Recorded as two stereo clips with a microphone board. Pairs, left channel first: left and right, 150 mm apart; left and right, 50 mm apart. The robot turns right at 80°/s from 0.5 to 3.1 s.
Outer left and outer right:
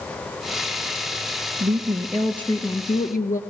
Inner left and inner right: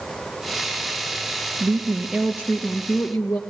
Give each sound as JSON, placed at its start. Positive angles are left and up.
{"t": 1.6, "sound": "a woman speaking", "azimuth_deg": -50, "distance_m": 1.8}